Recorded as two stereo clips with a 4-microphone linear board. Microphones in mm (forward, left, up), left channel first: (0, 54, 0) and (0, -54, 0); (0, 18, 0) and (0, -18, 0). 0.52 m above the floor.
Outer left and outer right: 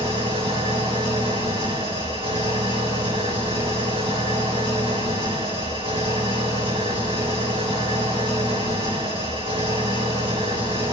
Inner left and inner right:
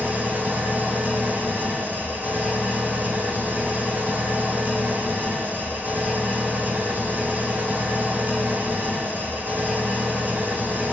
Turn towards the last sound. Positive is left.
turn(degrees=-55)  # may be behind; listen again after turning